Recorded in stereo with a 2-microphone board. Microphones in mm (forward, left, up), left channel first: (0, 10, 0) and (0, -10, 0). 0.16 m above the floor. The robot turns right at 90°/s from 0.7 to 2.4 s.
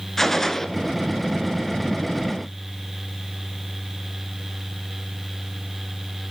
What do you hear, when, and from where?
0.2 s a gunshot: 15° left (ahead or behind), 0.6 m